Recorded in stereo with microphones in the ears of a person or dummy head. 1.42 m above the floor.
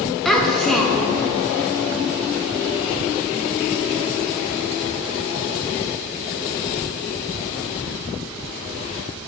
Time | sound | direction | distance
0.2 | a child speaking | centre (ahead or behind) | 1.0 m